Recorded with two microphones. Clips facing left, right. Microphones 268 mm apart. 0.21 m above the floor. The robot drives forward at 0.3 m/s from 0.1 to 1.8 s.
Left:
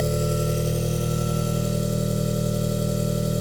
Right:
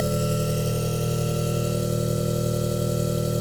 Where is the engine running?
5° right (ahead or behind), 0.8 m.